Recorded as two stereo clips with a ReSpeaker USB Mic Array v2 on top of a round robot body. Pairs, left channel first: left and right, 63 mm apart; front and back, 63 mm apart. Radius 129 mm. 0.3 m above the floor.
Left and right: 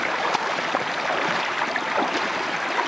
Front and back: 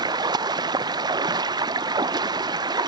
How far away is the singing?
No singing in this recording.